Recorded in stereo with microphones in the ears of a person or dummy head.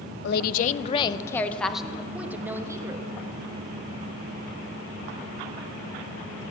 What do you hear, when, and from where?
0.2 s a woman speaking: 70° left (ahead or behind), 0.6 m; by 3.1 s 10° right (ahead or behind), 1.4 m